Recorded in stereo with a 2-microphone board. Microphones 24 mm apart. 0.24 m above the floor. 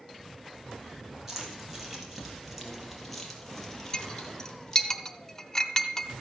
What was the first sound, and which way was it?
Keys jangling, 15° right (ahead or behind).